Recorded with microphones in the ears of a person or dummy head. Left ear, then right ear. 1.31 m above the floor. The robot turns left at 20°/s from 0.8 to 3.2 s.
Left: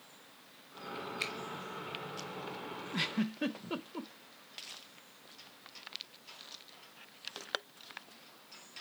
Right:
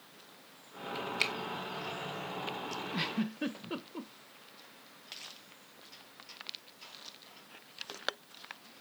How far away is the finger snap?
About 1.0 m.